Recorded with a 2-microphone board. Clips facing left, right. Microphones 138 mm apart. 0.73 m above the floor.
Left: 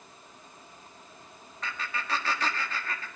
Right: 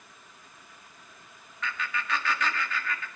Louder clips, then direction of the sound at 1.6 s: Right 2 dB; 35° left (ahead or behind).